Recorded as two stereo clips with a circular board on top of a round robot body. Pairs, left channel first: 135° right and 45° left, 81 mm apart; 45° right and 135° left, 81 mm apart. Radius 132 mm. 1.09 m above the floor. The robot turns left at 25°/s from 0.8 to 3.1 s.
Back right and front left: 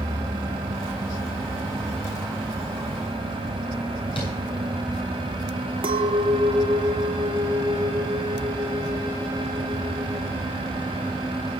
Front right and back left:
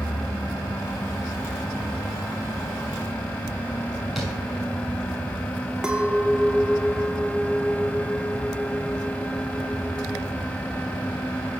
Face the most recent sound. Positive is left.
turn(degrees=55)